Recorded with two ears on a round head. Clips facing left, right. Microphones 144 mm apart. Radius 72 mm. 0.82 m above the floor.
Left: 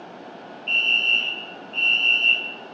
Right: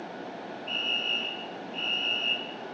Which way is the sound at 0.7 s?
35° left (ahead or behind).